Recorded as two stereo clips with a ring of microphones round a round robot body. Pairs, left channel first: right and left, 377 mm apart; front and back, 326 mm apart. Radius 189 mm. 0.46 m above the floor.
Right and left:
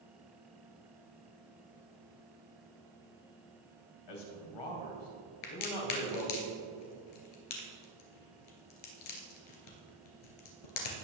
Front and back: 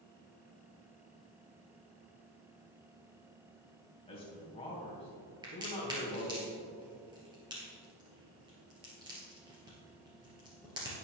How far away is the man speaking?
About 2.5 m.